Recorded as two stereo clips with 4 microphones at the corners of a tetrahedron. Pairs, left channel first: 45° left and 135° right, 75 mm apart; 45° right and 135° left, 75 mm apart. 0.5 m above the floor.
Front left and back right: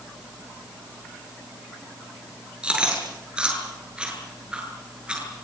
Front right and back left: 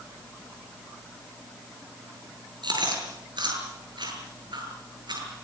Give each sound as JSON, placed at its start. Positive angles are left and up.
{"t": 2.6, "sound": "chewing", "azimuth_deg": 150, "distance_m": 8.0}